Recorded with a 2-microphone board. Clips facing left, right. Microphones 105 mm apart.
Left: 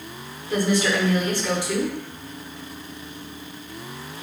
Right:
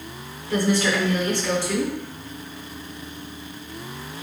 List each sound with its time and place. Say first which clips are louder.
0.5 s a woman speaking: even; 15° left (ahead or behind), 1.0 m